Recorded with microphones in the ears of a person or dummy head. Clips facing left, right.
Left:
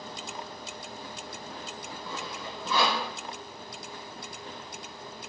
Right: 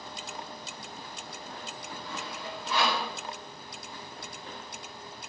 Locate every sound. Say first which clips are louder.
2.0 s sawing: left 1 dB; 80° left, 3.5 m